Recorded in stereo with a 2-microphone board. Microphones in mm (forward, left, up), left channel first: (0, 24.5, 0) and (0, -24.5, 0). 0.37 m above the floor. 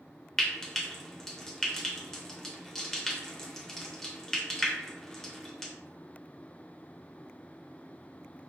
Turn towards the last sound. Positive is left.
turn(degrees=10)  # may be behind; listen again after turning